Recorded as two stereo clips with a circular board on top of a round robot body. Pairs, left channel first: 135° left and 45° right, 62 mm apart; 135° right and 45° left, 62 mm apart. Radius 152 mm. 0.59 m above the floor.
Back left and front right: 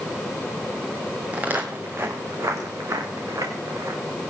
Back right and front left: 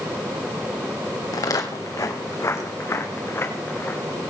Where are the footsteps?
115° right, 2.5 m; by 4.0 s 75° right, 5.5 m.